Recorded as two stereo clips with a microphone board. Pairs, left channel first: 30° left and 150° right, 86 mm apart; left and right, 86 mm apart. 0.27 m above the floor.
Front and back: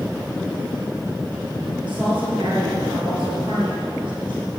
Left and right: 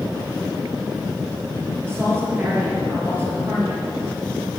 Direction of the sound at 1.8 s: 150° right.